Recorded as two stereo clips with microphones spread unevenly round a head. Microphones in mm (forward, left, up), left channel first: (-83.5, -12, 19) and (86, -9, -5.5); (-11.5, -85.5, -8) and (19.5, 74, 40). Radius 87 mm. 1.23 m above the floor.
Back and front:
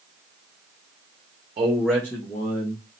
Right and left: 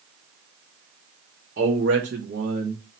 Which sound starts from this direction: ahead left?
A man speaking, at 1.6 s.